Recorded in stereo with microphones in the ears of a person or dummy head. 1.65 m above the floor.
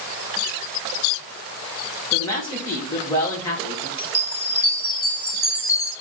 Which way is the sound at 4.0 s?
15° left (ahead or behind).